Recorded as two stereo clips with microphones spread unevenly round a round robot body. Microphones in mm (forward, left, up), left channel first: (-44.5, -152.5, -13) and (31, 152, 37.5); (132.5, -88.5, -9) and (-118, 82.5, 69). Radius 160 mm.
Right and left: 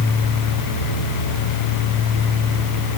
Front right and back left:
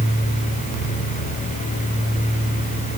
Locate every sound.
Only background noise.